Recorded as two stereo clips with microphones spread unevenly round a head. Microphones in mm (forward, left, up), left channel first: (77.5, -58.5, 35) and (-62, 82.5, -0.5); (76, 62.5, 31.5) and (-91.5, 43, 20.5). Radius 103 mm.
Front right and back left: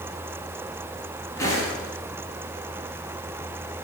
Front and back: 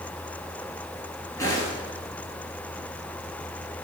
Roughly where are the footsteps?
Ahead right.